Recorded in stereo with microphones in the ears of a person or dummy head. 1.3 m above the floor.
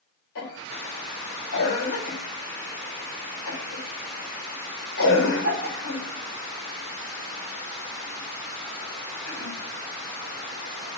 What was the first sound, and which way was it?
A cough, 70° left (ahead or behind).